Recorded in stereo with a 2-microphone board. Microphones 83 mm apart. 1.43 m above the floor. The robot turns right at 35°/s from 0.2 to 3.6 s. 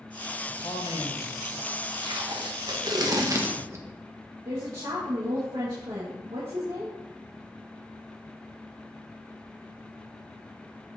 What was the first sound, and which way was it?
A man speaking, 85° left.